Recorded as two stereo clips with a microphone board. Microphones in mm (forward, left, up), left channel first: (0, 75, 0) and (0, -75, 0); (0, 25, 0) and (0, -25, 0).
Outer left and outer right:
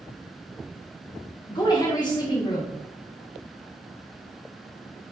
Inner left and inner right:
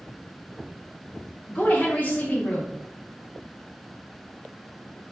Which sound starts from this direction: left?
A woman speaking, at 1.5 s.